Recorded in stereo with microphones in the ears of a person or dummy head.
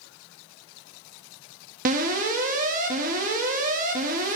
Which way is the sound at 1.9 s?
45° right (ahead or behind).